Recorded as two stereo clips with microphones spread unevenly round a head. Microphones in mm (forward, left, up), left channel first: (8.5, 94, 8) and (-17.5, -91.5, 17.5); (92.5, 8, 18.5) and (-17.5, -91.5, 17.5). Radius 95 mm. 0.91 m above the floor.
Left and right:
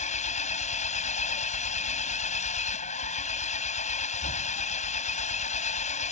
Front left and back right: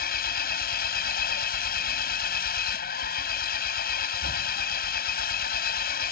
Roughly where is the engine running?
Ahead left.